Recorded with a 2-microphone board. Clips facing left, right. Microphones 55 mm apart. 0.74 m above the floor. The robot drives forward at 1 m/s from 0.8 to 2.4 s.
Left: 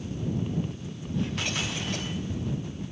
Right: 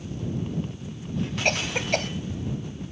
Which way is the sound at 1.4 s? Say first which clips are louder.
Right 6 dB; 60° right (ahead or behind).